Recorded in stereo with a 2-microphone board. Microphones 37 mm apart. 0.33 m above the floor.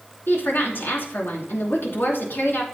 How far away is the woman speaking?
About 3 m.